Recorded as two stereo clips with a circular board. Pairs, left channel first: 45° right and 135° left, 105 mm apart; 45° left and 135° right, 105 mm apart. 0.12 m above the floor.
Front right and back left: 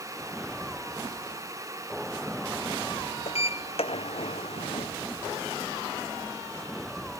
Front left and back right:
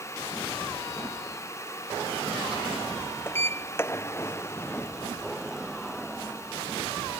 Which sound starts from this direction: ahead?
A sliding door, at 3.3 s.